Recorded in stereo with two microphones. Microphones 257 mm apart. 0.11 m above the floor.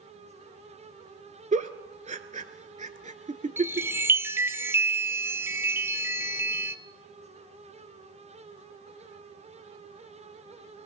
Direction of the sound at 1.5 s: 30° right (ahead or behind).